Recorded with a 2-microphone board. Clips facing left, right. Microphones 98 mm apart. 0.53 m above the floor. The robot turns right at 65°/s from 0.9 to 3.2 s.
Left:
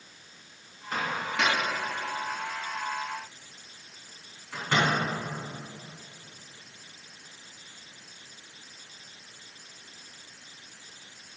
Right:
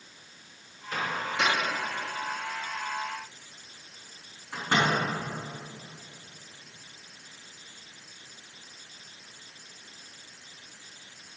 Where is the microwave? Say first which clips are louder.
Even; 50° left (ahead or behind), 3.5 m; by 4.9 s 20° right (ahead or behind), 3.5 m.